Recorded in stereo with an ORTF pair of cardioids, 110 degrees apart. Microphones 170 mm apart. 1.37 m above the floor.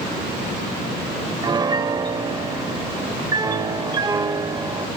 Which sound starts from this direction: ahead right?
A piano, at 1.4 s.